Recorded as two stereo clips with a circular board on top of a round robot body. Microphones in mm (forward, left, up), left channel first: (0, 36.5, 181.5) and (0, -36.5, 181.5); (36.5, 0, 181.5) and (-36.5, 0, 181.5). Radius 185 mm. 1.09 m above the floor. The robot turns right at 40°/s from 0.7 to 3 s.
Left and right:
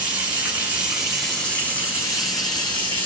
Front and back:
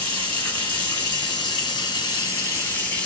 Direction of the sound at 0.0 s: 20° right.